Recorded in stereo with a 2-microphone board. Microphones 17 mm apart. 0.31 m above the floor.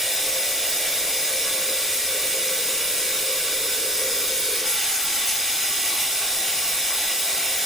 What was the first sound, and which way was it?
Running water, 10° right (ahead or behind).